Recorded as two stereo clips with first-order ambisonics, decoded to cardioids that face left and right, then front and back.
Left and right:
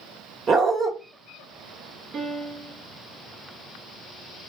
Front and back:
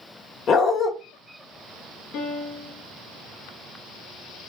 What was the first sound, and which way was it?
A dog barking, 40° right.